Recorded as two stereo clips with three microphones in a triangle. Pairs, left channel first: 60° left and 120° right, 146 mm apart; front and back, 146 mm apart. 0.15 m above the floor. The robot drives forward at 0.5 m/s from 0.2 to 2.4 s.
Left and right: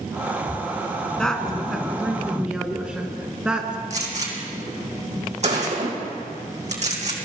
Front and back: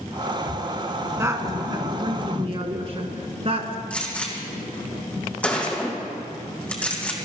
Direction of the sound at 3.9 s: 80° right.